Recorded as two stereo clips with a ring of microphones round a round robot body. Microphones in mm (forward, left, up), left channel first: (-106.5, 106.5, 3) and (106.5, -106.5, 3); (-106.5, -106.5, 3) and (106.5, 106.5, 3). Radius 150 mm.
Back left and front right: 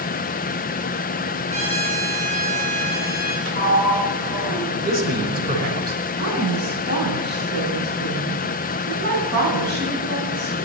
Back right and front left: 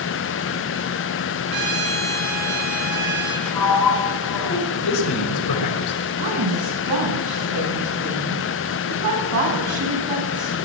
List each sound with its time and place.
1.5 s a trumpet: 25° left, 10 m
3.5 s a sliding door: 100° right, 5.5 m
4.8 s a man speaking: 105° right, 5.5 m
6.2 s a woman speaking: 10° left, 9 m